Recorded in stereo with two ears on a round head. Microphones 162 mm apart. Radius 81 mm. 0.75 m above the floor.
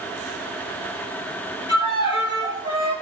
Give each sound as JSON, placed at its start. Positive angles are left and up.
{"t": 1.7, "sound": "a violin", "side_deg": 25, "distance_m": 1.9}